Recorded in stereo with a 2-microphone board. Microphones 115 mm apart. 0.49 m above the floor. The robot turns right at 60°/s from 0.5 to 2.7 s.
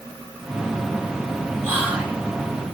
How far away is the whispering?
About 1.8 m.